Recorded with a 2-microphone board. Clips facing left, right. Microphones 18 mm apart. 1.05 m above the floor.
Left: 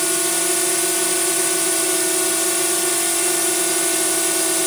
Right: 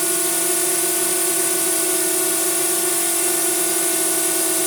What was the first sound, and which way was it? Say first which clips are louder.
A drone: left 1 dB; 20° left (ahead or behind).